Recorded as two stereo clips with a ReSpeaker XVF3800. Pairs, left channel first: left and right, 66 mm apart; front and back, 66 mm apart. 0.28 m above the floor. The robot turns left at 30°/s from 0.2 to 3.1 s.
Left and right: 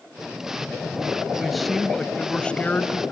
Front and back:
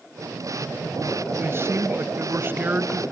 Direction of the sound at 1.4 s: 175° right.